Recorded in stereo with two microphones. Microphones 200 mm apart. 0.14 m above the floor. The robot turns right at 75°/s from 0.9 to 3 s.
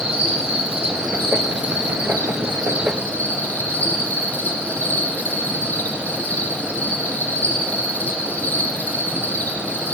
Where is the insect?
150° right, 4.5 m; by 9.9 s 10° left, 4.5 m.